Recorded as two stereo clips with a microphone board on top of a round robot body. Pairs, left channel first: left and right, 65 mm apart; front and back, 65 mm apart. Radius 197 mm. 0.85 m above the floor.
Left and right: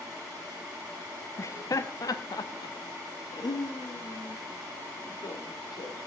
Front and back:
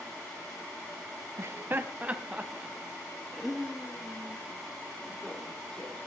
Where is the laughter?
135° left, 0.9 m; by 6.1 s 75° left, 3 m.